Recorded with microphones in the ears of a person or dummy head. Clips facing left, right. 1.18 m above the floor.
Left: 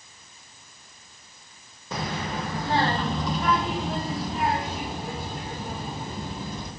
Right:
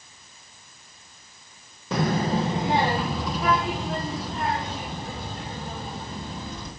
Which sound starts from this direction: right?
A child speaking, at 1.9 s.